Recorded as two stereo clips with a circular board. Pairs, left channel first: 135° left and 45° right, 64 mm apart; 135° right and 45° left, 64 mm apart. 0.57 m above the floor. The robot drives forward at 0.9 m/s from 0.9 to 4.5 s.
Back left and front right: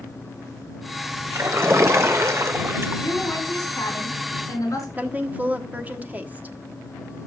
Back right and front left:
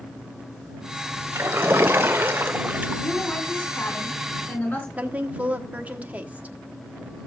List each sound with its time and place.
1.3 s a splash: 5° right, 2.0 m; by 3.0 s 15° right, 0.6 m
3.0 s a woman speaking: 165° left, 4 m; by 4.9 s 170° left, 5 m
5.0 s a woman speaking: straight ahead, 1.2 m